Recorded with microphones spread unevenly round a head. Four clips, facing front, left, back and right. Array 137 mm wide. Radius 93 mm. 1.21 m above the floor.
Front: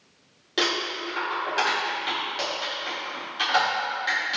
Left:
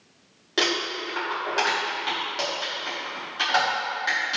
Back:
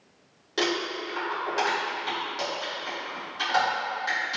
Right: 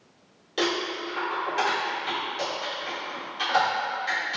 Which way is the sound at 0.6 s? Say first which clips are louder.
Even, even; 65° left.